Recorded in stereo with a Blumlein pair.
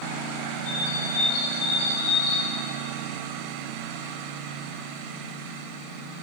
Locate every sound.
0.6 s a bird: 45° left, 4.5 m